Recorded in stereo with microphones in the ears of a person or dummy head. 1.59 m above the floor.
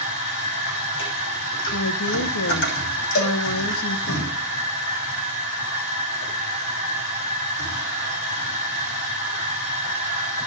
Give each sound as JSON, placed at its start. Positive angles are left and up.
{"t": 0.0, "sound": "a machine running", "side_deg": 65, "distance_m": 6.0}
{"t": 1.7, "sound": "a woman speaking", "side_deg": 70, "distance_m": 1.3}
{"t": 3.1, "sound": "a cowbell", "side_deg": 55, "distance_m": 2.5}